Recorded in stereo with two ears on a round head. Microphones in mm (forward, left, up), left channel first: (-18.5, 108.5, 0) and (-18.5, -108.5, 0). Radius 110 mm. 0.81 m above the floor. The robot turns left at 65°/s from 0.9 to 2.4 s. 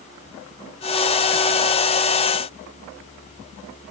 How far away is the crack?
No crack in this recording.